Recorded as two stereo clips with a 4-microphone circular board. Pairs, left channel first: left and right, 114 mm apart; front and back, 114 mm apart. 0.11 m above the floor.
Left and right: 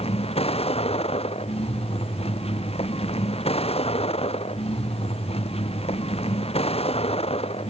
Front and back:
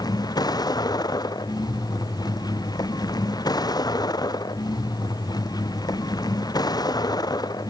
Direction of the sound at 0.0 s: 55° left.